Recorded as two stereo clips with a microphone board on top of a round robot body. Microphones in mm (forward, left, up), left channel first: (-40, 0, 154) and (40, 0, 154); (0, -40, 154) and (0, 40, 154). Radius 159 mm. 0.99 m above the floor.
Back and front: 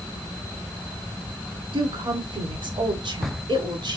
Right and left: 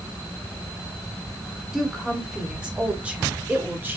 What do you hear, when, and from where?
1.7 s a woman speaking: straight ahead, 4 m; by 4.0 s 25° left, 4 m